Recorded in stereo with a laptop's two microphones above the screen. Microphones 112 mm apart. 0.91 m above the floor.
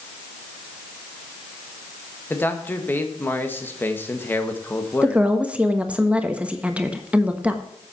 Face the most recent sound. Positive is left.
turn(degrees=-10)  # may be behind; listen again after turning